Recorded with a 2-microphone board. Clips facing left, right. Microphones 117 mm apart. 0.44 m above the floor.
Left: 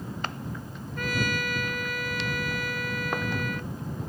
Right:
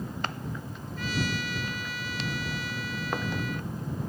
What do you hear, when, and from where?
1.0 s a trumpet: 55° left (ahead or behind)